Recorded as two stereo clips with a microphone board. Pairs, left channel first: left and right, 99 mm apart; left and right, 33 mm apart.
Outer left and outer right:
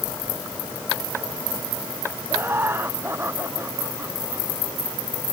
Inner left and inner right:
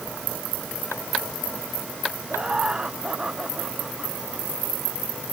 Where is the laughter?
25° right (ahead or behind).